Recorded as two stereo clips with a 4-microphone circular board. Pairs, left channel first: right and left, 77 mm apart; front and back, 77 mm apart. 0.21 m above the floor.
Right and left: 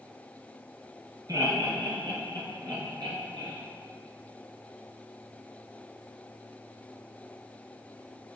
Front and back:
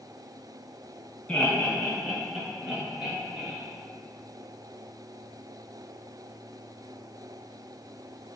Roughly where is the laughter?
Left.